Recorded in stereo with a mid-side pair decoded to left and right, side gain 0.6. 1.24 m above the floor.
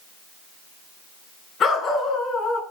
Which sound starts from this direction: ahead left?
A dog barking, at 1.6 s.